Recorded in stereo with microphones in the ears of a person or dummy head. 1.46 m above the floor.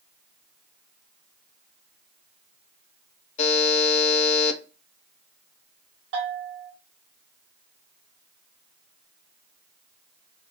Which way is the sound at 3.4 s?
40° left (ahead or behind).